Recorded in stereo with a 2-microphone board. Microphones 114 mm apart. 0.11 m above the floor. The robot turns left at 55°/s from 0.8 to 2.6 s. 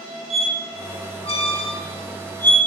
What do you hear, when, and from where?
0.3 s a squeak: 60° left (ahead or behind), 0.6 m; by 2.6 s 10° left (ahead or behind), 0.6 m